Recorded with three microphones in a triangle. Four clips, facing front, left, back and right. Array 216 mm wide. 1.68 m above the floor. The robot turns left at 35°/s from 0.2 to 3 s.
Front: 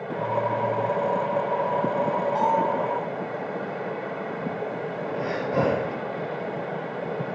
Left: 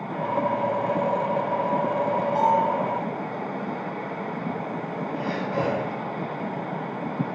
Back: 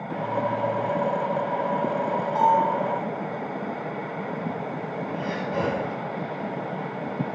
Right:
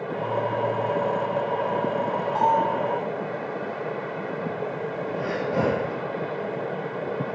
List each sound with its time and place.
2.4 s a bell: 20° left, 1.5 m; by 2.7 s 5° left, 1.5 m
5.1 s breathing: 25° right, 0.5 m